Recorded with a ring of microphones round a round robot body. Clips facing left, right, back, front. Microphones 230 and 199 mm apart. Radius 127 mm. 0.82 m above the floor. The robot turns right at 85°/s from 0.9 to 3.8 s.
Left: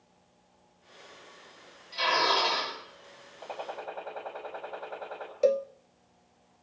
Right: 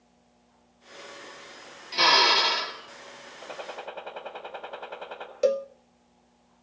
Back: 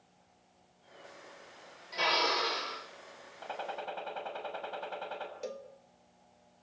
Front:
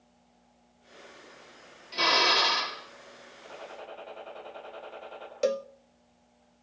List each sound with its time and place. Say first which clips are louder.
1.9 s a drill: right 3 dB, front 4 dB; 65° right, 6.5 m; by 2.8 s 10° left, 6.5 m
3.4 s a gunshot: even, back 4 dB; 175° right, 6 m; by 5.3 s 140° right, 6 m
5.4 s a cowbell: right 1 dB, front 17 dB; 15° right, 0.5 m